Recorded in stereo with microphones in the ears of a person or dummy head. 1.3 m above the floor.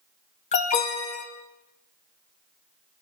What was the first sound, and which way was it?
An alarm, 35° left (ahead or behind).